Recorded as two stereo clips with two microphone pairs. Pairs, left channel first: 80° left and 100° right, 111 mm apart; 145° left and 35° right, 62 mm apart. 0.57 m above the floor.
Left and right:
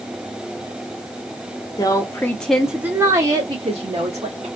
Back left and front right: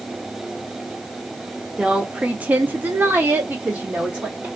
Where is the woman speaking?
35° left, 0.9 m; by 4.5 s 95° right, 1.2 m.